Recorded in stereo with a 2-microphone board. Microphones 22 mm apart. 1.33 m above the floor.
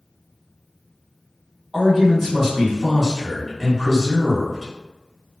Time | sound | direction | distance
1.7 | a man speaking | 5° right (ahead or behind) | 1.3 m